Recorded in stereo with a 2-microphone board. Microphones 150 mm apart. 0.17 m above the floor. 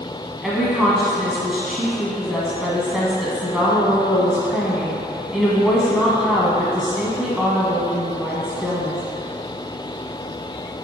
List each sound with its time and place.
0.4 s a woman speaking: centre (ahead or behind), 1.0 m